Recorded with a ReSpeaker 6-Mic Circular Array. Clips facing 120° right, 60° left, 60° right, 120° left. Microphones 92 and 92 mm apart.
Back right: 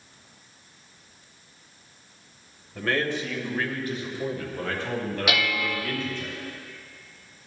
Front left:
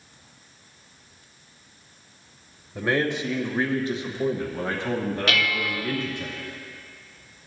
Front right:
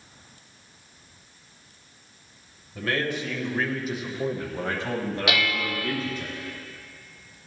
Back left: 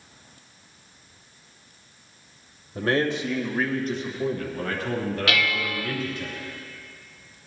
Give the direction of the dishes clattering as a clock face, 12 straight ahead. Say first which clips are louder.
Front left 1 dB, even; 2 o'clock.